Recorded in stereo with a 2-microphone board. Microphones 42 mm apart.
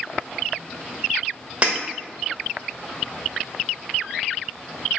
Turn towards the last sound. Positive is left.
turn(degrees=-30)  # may be behind; listen again after turning